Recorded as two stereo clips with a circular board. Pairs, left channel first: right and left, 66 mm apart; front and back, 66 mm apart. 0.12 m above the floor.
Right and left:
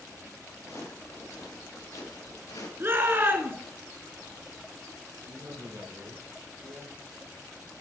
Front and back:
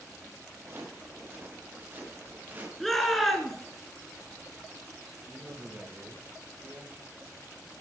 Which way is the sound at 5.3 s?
120° left.